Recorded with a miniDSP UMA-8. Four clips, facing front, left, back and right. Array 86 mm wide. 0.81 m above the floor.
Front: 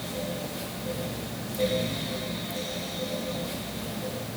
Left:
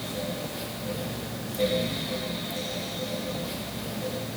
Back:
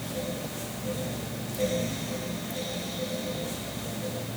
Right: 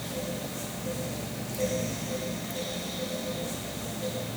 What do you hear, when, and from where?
Only background noise.